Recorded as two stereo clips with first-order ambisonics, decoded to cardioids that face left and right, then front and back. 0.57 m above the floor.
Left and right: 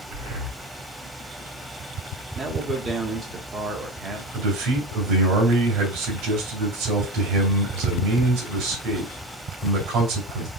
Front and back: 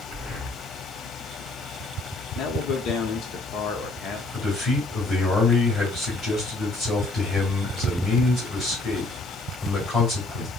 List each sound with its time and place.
0.1 s breathing: 80° right, 2.5 m
2.4 s a man speaking: 30° right, 1.0 m
4.3 s a man speaking: 75° right, 2.5 m